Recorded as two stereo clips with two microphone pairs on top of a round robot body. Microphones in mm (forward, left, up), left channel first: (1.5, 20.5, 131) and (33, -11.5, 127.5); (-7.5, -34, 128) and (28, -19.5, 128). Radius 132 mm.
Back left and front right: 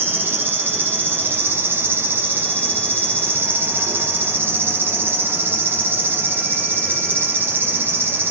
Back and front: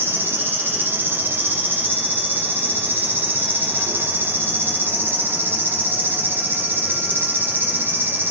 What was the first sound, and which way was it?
An insect, 5° right.